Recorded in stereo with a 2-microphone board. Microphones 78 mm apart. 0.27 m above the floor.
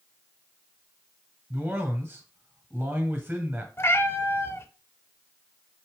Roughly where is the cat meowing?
Left.